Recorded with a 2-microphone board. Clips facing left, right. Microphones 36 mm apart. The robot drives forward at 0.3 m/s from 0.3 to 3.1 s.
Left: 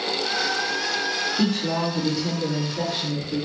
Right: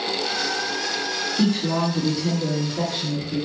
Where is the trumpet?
No trumpet in this recording.